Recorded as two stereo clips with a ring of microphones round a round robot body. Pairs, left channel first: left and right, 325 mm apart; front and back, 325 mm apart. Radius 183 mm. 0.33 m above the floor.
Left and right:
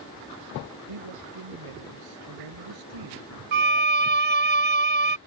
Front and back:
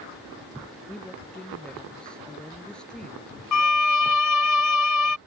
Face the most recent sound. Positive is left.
turn(degrees=-30)